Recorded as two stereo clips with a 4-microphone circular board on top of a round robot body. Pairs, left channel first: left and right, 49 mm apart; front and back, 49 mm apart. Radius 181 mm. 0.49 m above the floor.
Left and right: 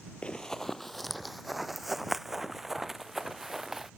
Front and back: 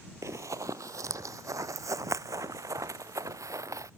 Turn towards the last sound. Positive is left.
turn(degrees=-175)